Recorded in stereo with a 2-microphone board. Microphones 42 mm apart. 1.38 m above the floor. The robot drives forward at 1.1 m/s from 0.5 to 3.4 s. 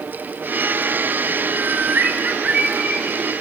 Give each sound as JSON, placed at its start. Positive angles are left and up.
{"t": 1.5, "sound": "a bird", "side_deg": -60, "distance_m": 1.6}